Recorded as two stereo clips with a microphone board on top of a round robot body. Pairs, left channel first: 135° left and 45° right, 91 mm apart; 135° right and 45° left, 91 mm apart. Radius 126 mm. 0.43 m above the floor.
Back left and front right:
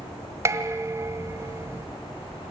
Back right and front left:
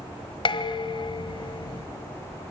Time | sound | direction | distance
0.5 | dishes clattering | 105° right | 1.7 m